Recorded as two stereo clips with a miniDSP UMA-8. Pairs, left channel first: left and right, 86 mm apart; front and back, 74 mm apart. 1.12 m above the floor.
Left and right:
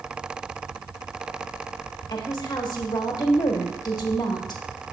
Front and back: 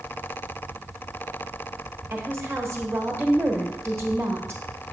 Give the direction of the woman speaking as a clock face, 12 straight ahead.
8 o'clock.